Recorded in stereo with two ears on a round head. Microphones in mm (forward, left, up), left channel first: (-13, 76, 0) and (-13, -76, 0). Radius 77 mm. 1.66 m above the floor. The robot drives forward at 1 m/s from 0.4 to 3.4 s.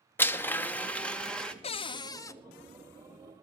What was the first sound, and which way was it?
A blender, 10° left (ahead or behind).